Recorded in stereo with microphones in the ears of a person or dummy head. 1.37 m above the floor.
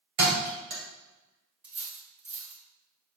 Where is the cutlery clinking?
Centre (ahead or behind), 1.8 m.